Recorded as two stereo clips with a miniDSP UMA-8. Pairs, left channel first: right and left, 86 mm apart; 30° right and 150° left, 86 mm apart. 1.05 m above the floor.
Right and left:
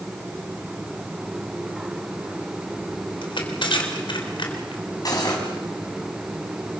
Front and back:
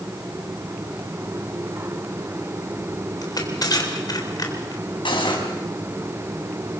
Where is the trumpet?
I don't hear a trumpet.